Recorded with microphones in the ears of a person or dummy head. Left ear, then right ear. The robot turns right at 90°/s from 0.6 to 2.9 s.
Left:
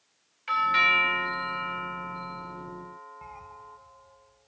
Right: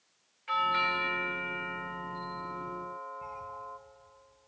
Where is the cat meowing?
25° left (ahead or behind), 2 m.